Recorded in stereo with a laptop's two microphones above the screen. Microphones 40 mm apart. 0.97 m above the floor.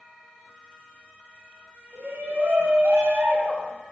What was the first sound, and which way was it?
A shout, 85° right.